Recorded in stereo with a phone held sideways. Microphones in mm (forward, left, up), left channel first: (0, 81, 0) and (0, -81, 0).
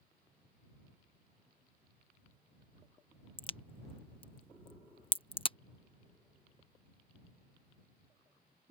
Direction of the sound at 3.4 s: 35° left (ahead or behind).